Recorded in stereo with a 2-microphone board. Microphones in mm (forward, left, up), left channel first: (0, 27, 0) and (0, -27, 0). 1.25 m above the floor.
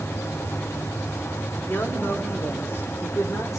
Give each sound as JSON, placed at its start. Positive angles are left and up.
{"t": 1.6, "sound": "a man speaking", "side_deg": 45, "distance_m": 5.0}